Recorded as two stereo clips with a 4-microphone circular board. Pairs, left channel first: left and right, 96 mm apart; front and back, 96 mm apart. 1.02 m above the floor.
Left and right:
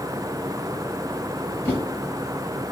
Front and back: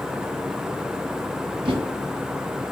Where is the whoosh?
160° left, 0.9 m.